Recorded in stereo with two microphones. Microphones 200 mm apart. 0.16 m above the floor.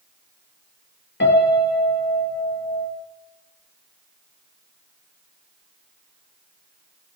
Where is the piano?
70° left (ahead or behind), 0.8 m.